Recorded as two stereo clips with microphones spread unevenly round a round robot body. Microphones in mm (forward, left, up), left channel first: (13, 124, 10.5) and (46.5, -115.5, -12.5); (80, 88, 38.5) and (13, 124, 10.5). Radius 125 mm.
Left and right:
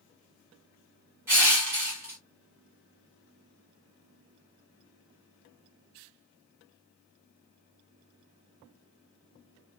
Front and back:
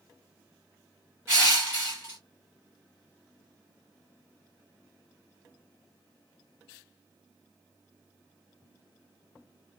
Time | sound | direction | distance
1.3 | crushing | 160° right | 2 m